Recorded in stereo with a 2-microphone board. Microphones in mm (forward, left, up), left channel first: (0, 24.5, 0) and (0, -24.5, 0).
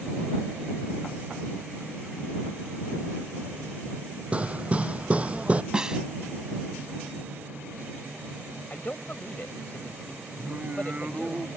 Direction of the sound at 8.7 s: 35° left (ahead or behind).